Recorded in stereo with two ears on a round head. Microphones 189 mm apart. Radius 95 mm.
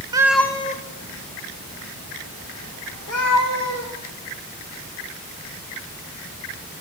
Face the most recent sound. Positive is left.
turn(degrees=80)